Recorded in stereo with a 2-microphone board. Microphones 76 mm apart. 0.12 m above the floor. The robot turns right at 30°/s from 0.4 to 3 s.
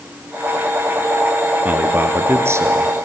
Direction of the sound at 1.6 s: 145° right.